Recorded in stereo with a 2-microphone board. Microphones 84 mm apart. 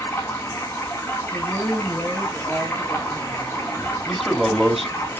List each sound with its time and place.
0.0 s running water: 25° left (ahead or behind), 5 m
1.3 s a woman speaking: 5° left (ahead or behind), 2.0 m
4.1 s a man speaking: 5° right (ahead or behind), 1.7 m